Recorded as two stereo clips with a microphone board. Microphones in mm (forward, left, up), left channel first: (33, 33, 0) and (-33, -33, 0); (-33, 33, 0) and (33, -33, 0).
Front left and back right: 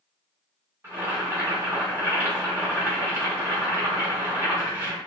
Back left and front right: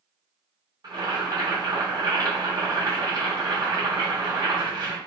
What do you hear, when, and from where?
0.8 s boiling: 70° right, 1.3 m